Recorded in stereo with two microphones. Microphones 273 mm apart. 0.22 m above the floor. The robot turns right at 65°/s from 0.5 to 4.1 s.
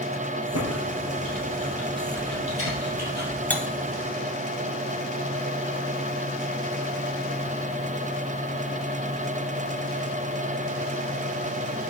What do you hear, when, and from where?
0.5 s typing on a keyboard: 70° left (ahead or behind), 4 m; by 3.4 s 65° right (ahead or behind), 4 m
3.5 s cutlery clinking: 5° left (ahead or behind), 0.9 m; by 3.6 s centre (ahead or behind), 0.9 m